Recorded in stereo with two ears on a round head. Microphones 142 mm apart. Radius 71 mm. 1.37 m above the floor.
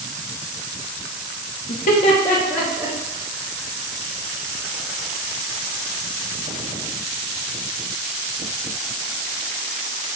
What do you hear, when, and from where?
1.7 s laughter: 60° left (ahead or behind), 0.5 m; by 3.0 s 10° right (ahead or behind), 0.7 m